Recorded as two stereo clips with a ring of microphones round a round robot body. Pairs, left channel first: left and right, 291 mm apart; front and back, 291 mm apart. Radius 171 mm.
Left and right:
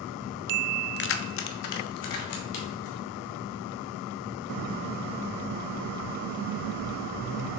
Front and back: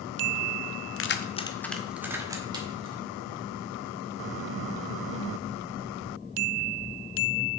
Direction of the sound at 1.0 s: 35° left.